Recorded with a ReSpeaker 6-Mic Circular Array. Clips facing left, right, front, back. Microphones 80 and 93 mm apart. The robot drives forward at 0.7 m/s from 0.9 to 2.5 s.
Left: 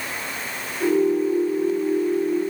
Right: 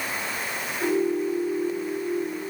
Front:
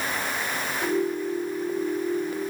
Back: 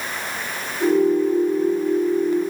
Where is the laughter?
I don't hear laughter.